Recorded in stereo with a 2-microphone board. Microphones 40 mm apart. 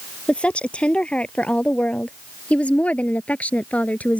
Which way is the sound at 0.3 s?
25° left (ahead or behind).